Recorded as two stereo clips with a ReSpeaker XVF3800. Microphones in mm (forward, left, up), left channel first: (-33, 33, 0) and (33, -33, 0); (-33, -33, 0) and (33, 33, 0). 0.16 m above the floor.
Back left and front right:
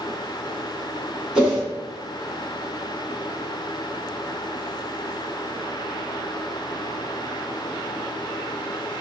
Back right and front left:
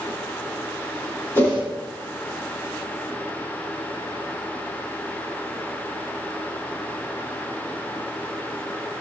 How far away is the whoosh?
About 1.1 m.